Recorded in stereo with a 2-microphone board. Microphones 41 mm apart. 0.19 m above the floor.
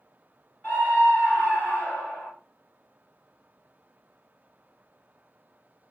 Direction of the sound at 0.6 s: 40° left (ahead or behind).